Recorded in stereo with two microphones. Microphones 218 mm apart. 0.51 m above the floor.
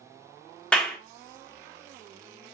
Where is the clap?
5° left (ahead or behind), 0.6 m.